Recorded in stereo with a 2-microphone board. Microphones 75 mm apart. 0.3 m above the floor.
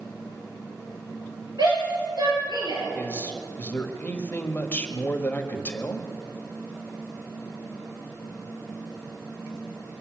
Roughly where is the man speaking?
Left.